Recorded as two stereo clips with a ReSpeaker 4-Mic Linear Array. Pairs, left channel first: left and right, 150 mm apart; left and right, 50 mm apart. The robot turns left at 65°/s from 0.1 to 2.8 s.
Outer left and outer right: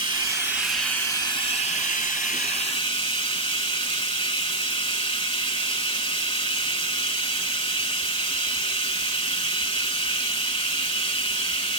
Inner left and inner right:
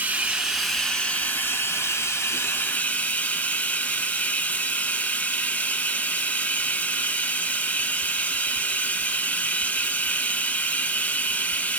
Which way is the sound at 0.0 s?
140° right.